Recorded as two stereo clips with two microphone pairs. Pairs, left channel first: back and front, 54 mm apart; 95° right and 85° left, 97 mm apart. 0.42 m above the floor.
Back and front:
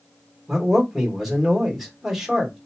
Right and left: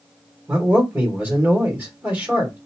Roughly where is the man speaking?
Left.